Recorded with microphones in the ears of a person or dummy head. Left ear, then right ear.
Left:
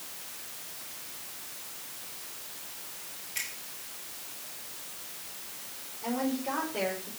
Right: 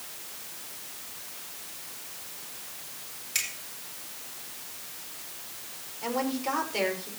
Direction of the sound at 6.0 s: 75° right (ahead or behind).